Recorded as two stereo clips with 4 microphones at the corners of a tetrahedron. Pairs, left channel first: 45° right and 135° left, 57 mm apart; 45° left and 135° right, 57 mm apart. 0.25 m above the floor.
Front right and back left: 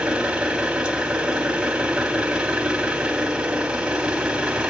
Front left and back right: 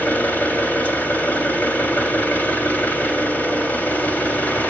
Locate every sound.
0.0 s an engine running: 70° left, 1.1 m